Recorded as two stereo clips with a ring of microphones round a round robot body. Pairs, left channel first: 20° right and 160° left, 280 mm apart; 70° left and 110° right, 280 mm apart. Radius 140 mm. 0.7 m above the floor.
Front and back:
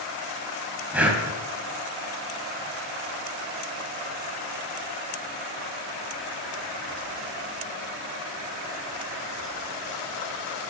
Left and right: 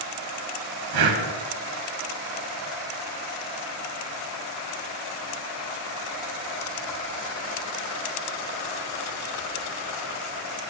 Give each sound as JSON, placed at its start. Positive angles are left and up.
{"t": 0.9, "sound": "breathing", "azimuth_deg": -115, "distance_m": 3.0}